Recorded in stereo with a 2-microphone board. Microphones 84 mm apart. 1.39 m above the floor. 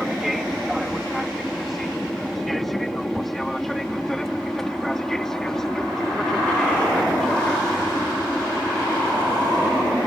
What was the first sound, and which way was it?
An aircraft, centre (ahead or behind).